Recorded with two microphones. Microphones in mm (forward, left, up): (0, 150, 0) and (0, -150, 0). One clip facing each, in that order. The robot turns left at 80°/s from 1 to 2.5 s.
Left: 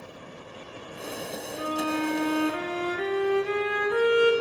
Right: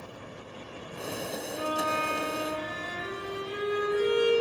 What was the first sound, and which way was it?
A violin, 165° left.